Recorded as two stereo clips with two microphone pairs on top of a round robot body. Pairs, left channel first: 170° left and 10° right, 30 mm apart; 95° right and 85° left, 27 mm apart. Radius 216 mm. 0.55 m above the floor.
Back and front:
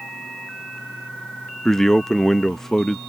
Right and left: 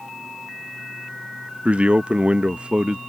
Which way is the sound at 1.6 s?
105° left.